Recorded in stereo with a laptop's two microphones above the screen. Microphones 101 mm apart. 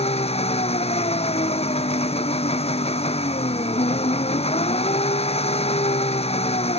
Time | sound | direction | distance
0.0 | an engine running | 80° left | ?